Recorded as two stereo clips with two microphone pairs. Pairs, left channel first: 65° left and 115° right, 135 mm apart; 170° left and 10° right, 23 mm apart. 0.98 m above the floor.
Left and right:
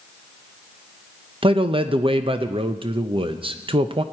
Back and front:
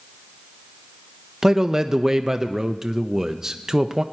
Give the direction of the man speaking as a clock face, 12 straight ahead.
3 o'clock.